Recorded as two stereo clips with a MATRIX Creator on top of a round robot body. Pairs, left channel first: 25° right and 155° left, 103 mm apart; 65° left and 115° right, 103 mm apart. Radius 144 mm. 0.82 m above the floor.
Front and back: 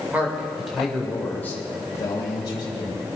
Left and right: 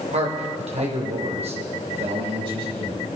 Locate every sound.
0.1 s a man speaking: 125° right, 3 m; by 3.1 s 70° right, 4.5 m